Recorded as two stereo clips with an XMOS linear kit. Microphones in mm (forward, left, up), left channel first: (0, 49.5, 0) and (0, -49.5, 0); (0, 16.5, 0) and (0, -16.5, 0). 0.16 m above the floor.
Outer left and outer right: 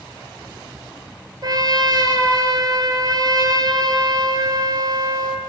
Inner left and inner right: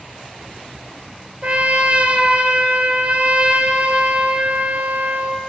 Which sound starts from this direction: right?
A trumpet, at 1.4 s.